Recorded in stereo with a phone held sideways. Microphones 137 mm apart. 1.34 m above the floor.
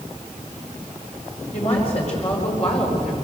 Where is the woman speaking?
45° left (ahead or behind), 5.5 m.